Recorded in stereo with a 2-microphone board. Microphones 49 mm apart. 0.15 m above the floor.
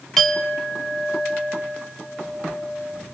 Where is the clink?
10° left (ahead or behind), 1.0 m.